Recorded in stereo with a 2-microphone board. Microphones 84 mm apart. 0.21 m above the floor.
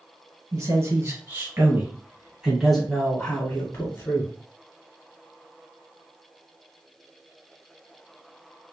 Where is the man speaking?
45° right (ahead or behind), 1.8 m; by 4.3 s 40° left (ahead or behind), 1.4 m.